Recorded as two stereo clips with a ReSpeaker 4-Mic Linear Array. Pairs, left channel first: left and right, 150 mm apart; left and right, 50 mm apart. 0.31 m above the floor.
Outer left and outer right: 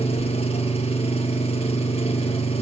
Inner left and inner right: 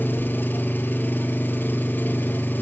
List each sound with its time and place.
0.0 s an engine running: 40° left (ahead or behind), 3.5 m